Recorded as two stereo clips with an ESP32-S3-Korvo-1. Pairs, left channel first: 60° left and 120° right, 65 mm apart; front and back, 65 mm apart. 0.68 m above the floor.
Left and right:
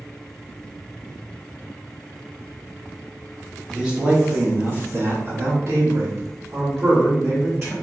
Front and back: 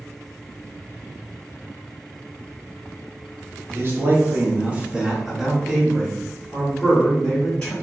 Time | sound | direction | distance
3.7 | a man speaking | 165° left | 1.0 m